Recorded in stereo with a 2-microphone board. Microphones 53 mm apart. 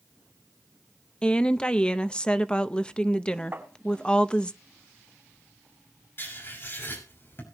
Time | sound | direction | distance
1.2 | a woman speaking | 15° left (ahead or behind) | 0.7 m
3.5 | tapping | 40° right (ahead or behind) | 4 m
6.2 | writing | 45° left (ahead or behind) | 6 m